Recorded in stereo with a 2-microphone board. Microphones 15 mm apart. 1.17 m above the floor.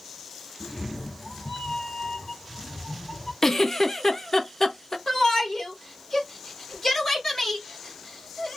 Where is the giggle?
25° left (ahead or behind), 0.7 m.